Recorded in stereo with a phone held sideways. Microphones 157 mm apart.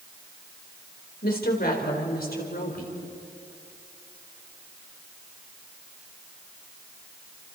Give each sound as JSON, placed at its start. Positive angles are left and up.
{"t": 1.2, "sound": "a woman speaking", "side_deg": 75, "distance_m": 4.0}